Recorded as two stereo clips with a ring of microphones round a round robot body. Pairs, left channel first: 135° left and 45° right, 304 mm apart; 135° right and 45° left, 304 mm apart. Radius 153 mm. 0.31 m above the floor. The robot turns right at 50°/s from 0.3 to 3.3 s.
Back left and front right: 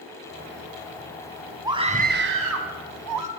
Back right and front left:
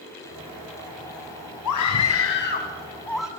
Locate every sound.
1.6 s a scream: 125° right, 2.5 m; by 3.3 s 40° right, 2.5 m